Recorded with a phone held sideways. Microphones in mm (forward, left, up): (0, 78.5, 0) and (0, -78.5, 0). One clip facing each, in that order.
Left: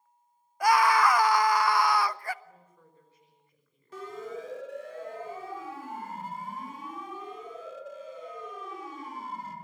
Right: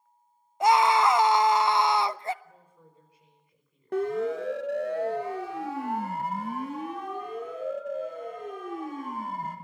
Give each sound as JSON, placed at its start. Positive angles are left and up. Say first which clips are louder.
{"t": 0.6, "sound": "a scream", "louder": "right 2 dB", "side_deg": -25, "distance_m": 0.6}
{"t": 2.4, "sound": "a woman speaking", "louder": "right 1 dB", "side_deg": -15, "distance_m": 5.5}
{"t": 3.9, "sound": "a siren", "louder": "right 11 dB", "side_deg": -65, "distance_m": 2.5}